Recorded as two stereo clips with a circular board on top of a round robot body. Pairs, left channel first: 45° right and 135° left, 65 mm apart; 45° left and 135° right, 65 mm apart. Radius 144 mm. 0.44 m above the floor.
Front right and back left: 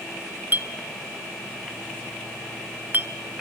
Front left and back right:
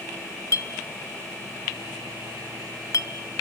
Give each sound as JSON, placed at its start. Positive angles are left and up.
{"t": 0.5, "sound": "a clink", "azimuth_deg": 75, "distance_m": 1.3}